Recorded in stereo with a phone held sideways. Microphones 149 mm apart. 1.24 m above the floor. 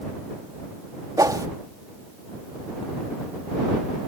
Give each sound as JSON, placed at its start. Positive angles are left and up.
{"t": 1.2, "sound": "a whoosh", "side_deg": -25}